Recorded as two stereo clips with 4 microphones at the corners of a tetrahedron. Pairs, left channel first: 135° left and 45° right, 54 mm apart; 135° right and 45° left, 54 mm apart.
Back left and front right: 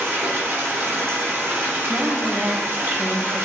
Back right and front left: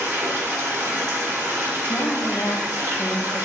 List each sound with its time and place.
0.0 s running water: straight ahead, 2 m
1.9 s a woman speaking: 115° right, 1.0 m